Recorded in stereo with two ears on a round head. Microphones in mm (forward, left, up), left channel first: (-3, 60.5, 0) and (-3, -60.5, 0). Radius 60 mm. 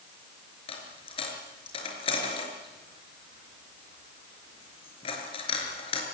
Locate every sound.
0.7 s a dropped coin: 45° left (ahead or behind), 4.5 m